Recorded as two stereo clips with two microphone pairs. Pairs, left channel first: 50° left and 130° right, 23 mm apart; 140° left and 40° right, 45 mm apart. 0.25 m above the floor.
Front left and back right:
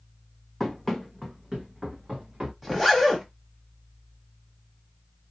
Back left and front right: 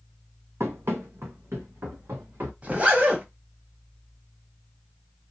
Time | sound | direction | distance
0.6 | running footsteps | 30° right | 0.8 m
2.6 | a zipper | 35° right | 1.1 m